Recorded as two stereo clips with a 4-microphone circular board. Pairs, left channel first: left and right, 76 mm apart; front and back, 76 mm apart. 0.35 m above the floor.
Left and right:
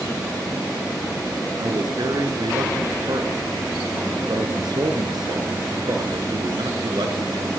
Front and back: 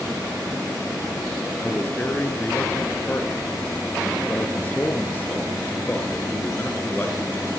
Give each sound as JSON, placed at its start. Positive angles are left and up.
{"t": 1.6, "sound": "a man speaking", "azimuth_deg": -65, "distance_m": 4.5}